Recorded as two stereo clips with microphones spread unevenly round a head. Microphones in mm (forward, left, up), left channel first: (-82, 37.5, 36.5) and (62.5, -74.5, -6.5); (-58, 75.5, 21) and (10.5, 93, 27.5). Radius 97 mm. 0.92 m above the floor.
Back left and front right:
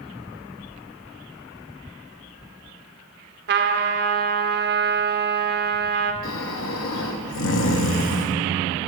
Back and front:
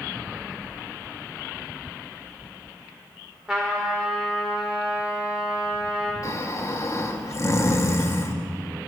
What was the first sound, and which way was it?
A trumpet, 70° right.